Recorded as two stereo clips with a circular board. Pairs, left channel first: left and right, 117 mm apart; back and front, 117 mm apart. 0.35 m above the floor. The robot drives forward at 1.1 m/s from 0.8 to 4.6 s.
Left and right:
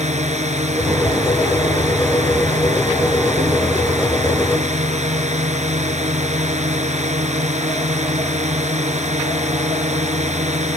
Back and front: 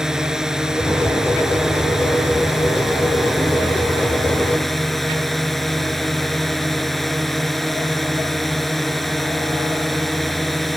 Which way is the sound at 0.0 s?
85° right.